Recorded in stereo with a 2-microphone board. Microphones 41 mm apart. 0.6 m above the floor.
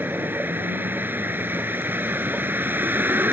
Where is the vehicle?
55° right (ahead or behind).